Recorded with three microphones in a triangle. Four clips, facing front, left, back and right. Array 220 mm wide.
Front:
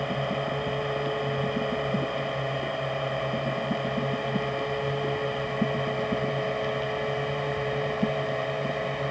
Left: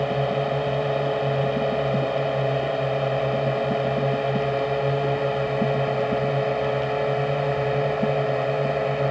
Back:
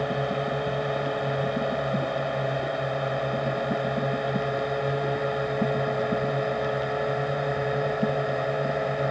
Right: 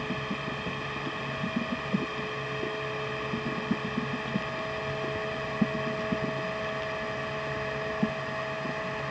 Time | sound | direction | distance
0.0 | a drone | 95° left | ?